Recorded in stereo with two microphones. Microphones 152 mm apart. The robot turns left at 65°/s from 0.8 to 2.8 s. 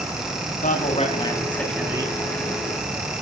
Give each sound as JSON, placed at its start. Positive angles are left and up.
{"t": 0.6, "sound": "a man speaking", "azimuth_deg": 55, "distance_m": 4.0}